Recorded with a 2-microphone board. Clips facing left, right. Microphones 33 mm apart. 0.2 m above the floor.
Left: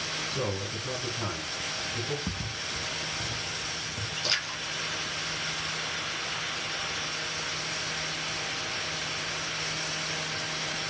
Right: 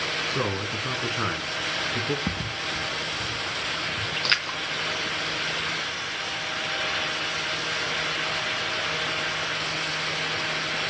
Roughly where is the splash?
Right.